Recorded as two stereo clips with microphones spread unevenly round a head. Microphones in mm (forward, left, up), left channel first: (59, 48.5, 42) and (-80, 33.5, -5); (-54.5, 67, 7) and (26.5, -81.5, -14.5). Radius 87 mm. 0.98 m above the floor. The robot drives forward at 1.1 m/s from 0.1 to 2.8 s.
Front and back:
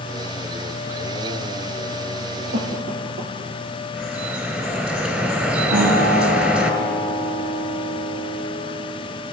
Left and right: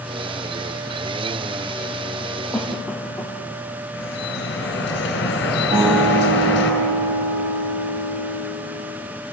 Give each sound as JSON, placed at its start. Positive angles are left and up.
{"t": 2.5, "sound": "a cough", "azimuth_deg": -155, "distance_m": 2.0}
{"t": 3.9, "sound": "dripping", "azimuth_deg": 100, "distance_m": 3.5}
{"t": 5.7, "sound": "a guitar", "azimuth_deg": -120, "distance_m": 8.0}